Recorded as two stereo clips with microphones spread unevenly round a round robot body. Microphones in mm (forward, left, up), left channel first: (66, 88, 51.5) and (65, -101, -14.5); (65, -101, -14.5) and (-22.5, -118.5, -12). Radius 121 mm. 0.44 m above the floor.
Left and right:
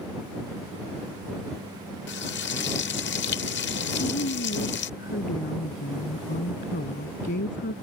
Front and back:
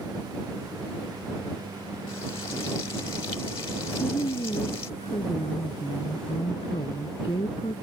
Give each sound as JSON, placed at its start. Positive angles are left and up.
{"t": 2.1, "sound": "frying", "azimuth_deg": 55}
{"t": 3.9, "sound": "a woman speaking", "azimuth_deg": 60}